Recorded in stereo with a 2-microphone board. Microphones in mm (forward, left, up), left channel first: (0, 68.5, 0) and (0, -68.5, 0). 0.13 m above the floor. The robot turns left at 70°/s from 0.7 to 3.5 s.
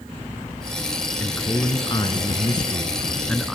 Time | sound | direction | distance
1.2 | a man speaking | 160° left | 1.3 m